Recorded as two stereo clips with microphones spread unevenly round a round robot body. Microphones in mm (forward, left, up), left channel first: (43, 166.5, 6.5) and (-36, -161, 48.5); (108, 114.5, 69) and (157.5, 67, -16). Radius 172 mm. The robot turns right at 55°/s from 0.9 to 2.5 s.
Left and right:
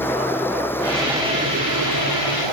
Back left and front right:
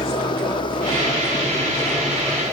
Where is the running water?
160° left; by 2.5 s 110° right.